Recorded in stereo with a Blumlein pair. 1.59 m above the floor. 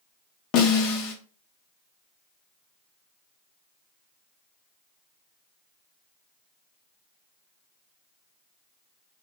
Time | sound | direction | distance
0.5 | a snare drum | 35° left | 0.7 m